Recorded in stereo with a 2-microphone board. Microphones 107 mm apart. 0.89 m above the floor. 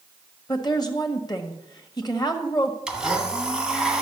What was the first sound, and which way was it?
A woman speaking, 40° left (ahead or behind).